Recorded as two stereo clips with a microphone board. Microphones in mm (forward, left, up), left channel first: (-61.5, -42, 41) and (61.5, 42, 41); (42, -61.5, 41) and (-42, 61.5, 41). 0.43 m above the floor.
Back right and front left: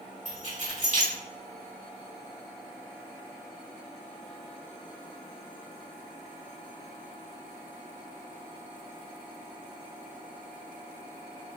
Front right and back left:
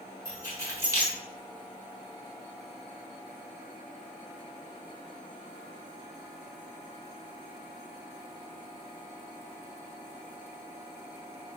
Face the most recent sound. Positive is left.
turn(degrees=60)